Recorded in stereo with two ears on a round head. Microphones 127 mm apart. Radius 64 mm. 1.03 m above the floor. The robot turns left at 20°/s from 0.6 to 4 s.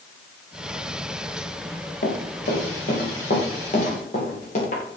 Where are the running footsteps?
75° left (ahead or behind), 6 m; by 4.8 s 50° left (ahead or behind), 9.5 m.